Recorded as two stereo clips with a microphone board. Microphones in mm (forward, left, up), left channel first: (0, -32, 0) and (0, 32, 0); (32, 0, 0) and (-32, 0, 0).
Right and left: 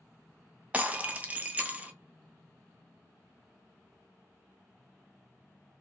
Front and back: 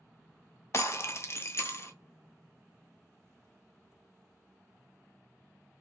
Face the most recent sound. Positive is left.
turn(degrees=30)